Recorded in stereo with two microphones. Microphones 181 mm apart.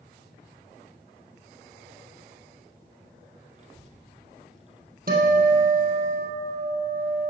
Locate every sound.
3.5 s a child speaking: 45° right (ahead or behind), 1.7 m
5.1 s a guitar: 60° right (ahead or behind), 2.5 m